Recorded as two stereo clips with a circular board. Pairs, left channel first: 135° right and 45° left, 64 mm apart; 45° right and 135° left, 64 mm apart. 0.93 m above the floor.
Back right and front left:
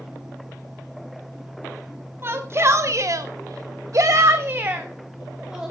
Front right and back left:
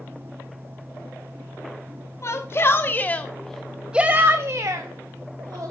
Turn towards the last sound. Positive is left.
turn(degrees=125)